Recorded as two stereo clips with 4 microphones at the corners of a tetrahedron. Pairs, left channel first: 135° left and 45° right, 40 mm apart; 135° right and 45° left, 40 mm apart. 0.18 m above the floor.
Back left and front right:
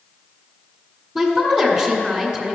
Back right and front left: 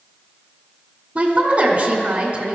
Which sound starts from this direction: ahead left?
A woman speaking, at 1.1 s.